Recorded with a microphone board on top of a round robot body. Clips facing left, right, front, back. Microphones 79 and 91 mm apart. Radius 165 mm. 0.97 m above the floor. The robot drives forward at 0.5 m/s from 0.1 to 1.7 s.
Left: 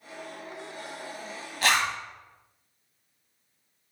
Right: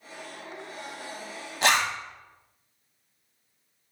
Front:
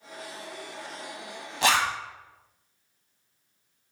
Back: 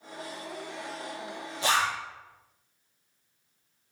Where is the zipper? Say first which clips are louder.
Right 1 dB, front 3 dB; 20° right, 1.1 m.